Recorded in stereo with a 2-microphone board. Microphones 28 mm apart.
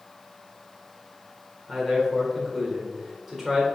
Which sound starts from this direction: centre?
A man speaking, at 1.7 s.